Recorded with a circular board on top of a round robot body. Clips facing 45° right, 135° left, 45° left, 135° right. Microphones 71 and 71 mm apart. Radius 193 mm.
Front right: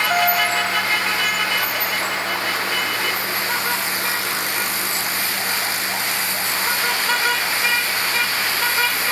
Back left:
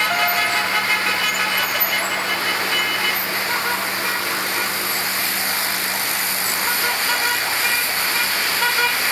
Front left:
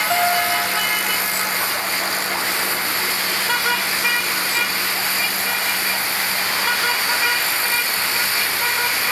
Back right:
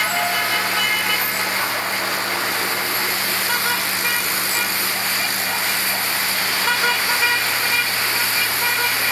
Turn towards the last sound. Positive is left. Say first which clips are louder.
# front right 1 dB, front left 3 dB
turn(degrees=35)